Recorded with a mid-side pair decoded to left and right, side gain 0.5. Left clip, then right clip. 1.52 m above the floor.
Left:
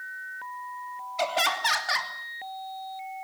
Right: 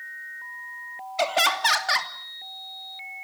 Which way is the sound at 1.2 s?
25° right.